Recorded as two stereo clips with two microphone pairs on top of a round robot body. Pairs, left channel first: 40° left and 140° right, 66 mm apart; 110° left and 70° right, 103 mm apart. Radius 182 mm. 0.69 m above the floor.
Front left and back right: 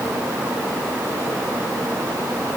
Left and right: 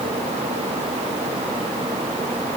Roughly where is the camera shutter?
I don't hear a camera shutter.